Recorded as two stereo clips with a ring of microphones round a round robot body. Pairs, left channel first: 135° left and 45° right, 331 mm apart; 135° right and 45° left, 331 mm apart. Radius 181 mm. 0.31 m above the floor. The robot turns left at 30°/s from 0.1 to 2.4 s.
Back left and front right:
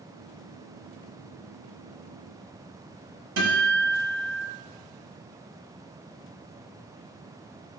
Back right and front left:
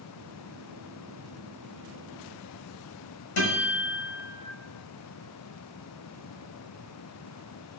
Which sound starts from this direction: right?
A guitar, at 3.4 s.